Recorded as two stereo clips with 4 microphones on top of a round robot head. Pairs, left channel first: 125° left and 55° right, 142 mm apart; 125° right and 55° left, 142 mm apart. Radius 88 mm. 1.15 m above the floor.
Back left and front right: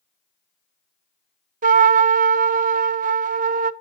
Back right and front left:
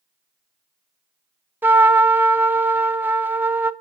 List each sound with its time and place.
1.6 s a trumpet: 25° right, 0.6 m